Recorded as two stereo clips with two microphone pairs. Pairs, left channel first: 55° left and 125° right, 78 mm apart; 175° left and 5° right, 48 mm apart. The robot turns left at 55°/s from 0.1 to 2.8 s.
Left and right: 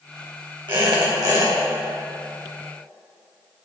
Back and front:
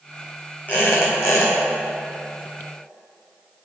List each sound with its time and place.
0.7 s a squeak: 130° right, 2.5 m; by 1.5 s 175° right, 2.5 m